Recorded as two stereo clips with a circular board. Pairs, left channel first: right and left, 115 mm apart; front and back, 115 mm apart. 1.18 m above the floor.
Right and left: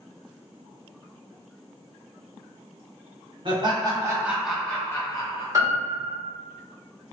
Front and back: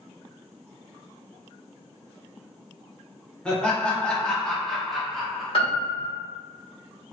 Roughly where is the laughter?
Left.